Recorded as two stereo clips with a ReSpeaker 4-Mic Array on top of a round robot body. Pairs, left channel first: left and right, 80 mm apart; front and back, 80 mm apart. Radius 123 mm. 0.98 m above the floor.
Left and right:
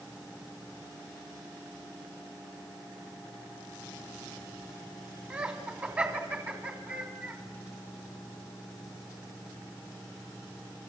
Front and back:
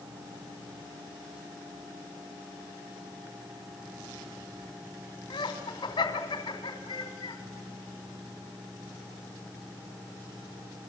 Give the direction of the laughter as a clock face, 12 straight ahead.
1 o'clock.